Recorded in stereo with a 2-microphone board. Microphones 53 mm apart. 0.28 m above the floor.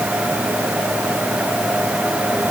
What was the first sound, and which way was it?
Only background noise.